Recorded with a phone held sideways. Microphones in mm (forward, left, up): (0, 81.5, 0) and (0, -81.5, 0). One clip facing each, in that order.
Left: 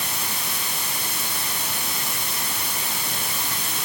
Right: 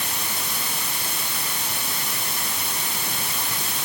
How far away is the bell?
No bell in this recording.